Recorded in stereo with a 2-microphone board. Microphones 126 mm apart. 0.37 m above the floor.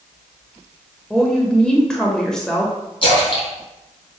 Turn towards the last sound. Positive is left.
turn(degrees=40)  # may be behind; listen again after turning